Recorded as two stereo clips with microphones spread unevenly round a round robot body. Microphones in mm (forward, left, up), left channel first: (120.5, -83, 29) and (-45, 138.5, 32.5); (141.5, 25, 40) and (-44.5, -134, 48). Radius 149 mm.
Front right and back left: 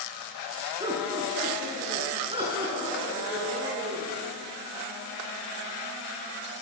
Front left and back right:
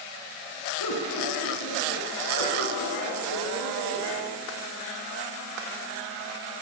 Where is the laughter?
55° left, 6.5 m.